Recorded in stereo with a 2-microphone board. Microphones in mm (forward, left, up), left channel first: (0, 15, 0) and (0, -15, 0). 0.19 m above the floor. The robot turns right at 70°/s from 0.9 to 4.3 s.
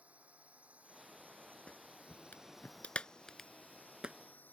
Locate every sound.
0.0 s a drone: 130° right; by 4.5 s 105° left
1.7 s a clap: 40° left (ahead or behind); by 4.2 s 35° right (ahead or behind)